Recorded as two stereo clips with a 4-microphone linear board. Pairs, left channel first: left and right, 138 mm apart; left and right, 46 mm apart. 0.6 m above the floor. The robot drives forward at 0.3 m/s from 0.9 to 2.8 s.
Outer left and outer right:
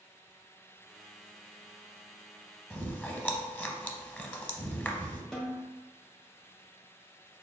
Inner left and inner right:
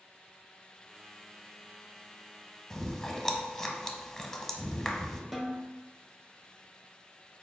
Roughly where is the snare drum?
Centre.